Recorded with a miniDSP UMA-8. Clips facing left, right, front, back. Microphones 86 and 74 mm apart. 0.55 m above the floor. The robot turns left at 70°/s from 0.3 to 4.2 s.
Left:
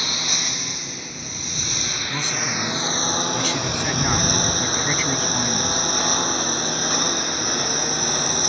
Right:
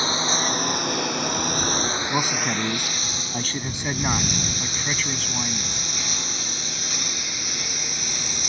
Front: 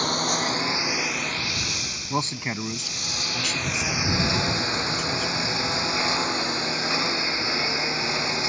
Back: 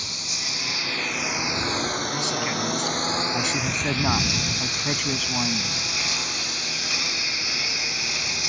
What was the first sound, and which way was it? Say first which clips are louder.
A lawn mower: right 6 dB, front 12 dB; 30° right.